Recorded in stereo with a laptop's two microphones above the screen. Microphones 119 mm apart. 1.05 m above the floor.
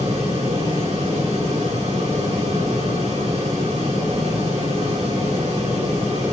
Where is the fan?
60° right (ahead or behind), 3 m.